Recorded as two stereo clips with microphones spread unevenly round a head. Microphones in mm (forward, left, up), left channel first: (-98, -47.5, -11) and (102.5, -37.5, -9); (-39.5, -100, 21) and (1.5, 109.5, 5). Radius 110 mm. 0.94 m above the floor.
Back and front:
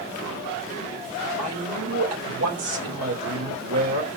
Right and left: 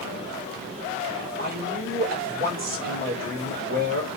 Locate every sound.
1.4 s a man speaking: 30° left, 3.5 m